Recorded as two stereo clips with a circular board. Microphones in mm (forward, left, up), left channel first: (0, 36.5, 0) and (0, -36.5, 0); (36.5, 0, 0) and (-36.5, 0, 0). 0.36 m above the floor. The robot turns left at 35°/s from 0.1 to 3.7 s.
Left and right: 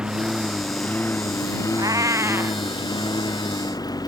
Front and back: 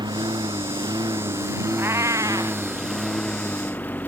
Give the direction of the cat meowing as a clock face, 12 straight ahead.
4 o'clock.